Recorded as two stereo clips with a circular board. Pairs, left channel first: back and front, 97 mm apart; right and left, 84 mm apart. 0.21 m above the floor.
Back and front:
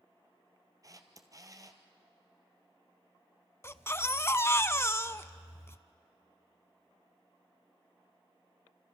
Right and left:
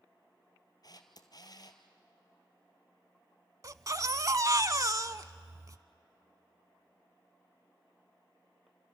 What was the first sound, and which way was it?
A camera shutter, 55° right.